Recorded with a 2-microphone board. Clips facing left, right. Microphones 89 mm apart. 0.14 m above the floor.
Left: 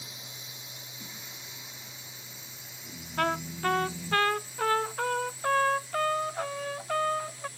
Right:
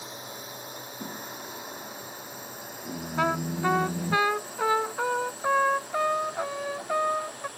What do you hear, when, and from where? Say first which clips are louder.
0.0 s a drone: right 9 dB; 45° right (ahead or behind); by 7.6 s 55° right (ahead or behind)
1.0 s singing: right 10 dB; 45° right (ahead or behind)
3.2 s a trumpet: right 3 dB; 10° right (ahead or behind)